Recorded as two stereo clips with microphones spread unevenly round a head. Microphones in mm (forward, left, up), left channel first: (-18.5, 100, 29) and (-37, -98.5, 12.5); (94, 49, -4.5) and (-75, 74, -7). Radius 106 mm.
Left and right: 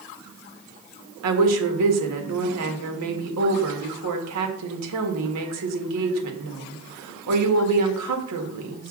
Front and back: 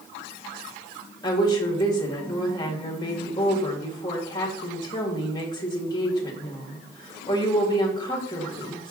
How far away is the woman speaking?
About 1.8 m.